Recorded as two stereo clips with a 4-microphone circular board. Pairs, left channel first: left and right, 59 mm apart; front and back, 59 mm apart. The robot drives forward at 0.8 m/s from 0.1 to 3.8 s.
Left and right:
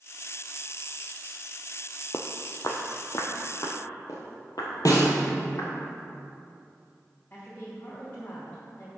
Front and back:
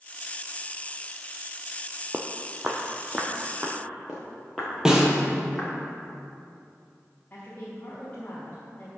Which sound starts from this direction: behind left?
Footsteps, at 2.1 s.